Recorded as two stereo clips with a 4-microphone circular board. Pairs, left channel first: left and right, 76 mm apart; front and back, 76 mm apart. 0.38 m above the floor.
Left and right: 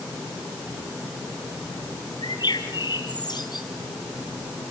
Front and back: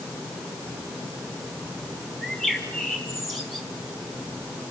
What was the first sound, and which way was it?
A bird, 90° left.